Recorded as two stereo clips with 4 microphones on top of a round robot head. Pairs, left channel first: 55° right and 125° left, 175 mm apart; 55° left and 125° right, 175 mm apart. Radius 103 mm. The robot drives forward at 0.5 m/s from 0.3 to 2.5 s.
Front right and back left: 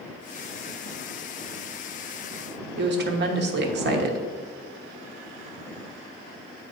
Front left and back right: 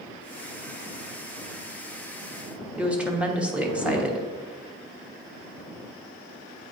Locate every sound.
2.8 s a woman speaking: 150° left, 1.1 m